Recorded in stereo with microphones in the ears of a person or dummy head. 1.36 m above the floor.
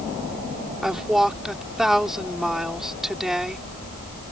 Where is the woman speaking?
5° right (ahead or behind).